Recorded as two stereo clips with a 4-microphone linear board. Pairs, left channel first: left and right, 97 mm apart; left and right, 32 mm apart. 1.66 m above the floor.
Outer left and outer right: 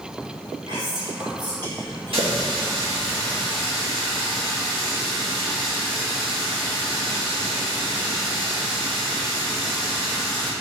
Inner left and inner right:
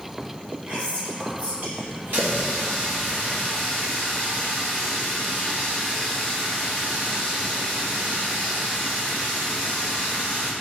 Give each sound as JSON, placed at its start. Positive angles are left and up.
{"t": 0.7, "sound": "whispering", "side_deg": -45, "distance_m": 2.0}
{"t": 2.1, "sound": "a running tap", "side_deg": -70, "distance_m": 1.8}